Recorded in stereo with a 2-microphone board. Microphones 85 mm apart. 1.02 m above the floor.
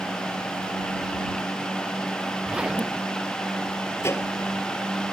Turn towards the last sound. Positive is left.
turn(degrees=30)  # may be behind; listen again after turning